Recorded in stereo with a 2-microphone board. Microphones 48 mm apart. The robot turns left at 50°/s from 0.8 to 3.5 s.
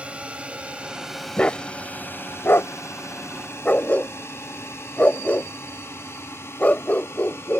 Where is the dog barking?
25° left (ahead or behind); by 7.6 s 30° left (ahead or behind).